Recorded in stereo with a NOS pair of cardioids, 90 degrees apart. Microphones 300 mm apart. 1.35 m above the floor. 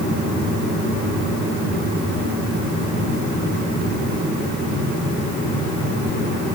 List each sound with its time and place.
Only background noise.